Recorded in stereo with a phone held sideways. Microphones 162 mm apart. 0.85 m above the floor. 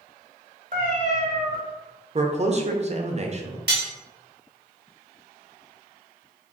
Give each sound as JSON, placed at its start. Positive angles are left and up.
{"t": 0.7, "sound": "a cat meowing", "side_deg": -55, "distance_m": 1.0}
{"t": 2.1, "sound": "a man speaking", "side_deg": -45, "distance_m": 0.6}
{"t": 3.7, "sound": "cutlery clinking", "side_deg": -85, "distance_m": 1.2}